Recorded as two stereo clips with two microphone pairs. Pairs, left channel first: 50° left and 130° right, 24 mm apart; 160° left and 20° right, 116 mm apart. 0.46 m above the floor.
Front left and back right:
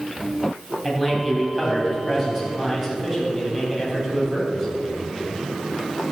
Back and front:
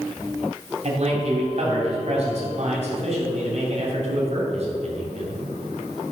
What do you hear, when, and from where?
0.8 s a man speaking: 40° right, 3 m